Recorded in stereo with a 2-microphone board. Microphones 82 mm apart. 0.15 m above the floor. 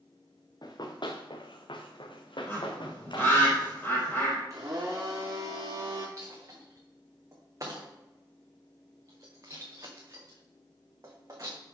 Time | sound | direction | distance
0.6 | running footsteps | 55° left (ahead or behind) | 1.3 m
2.5 | a bird | 25° left (ahead or behind) | 3.5 m
4.5 | a blender | 45° right (ahead or behind) | 2.5 m
6.2 | a dropped coin | 45° right (ahead or behind) | 1.8 m